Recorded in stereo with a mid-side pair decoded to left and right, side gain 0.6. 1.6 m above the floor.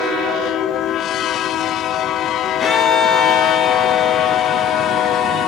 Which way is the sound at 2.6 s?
35° left.